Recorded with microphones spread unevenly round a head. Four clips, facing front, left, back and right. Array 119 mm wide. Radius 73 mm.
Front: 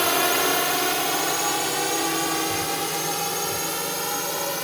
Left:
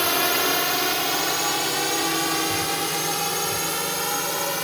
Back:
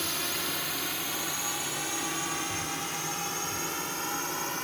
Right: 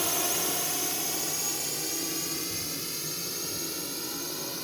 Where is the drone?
30° left; by 4.7 s 65° left.